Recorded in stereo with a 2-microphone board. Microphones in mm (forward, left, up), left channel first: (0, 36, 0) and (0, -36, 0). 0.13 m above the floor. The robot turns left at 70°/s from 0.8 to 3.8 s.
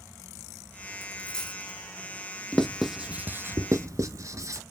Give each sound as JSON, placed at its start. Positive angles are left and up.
{"t": 1.0, "sound": "a dropped coin", "side_deg": 35, "distance_m": 1.5}
{"t": 2.5, "sound": "writing", "side_deg": 15, "distance_m": 0.7}